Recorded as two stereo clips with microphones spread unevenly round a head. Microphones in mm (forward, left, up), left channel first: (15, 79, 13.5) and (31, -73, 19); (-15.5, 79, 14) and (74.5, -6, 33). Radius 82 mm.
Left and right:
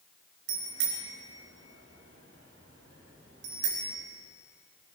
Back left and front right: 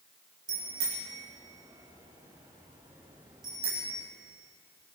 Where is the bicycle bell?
110° right, 4.5 m.